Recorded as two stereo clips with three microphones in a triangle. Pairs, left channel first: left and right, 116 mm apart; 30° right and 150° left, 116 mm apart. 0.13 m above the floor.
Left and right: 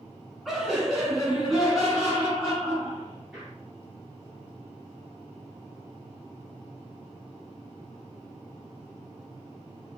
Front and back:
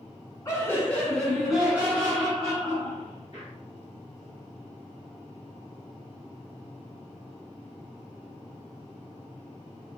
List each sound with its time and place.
0.5 s laughter: 5° right, 1.6 m; by 3.5 s 175° right, 2.5 m